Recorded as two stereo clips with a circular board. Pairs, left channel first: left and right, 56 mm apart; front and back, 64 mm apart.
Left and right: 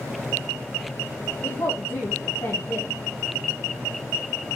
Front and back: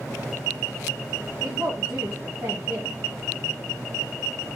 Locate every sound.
1.4 s a woman speaking: 115° left, 1.9 m